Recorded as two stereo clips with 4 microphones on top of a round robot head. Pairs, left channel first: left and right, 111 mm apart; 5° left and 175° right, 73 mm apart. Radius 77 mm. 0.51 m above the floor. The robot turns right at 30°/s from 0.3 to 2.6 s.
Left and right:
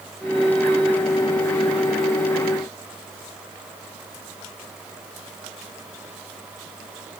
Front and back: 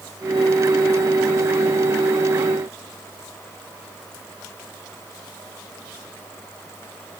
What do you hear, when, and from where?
Only background noise.